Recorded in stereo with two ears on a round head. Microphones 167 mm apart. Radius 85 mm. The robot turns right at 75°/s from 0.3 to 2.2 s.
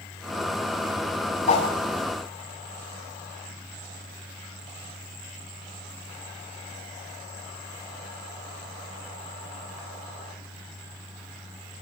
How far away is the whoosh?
About 7 m.